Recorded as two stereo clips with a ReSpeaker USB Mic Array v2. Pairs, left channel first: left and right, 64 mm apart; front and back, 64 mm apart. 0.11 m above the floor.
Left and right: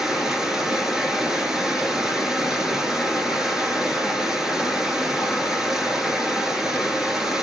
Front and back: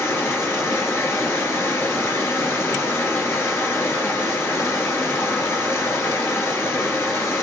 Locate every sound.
0.0 s running water: 10° right, 1.2 m